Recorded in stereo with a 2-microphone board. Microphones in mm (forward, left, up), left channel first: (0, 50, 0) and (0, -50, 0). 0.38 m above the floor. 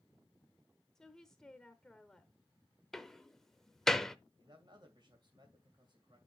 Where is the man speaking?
50° right (ahead or behind), 2 m.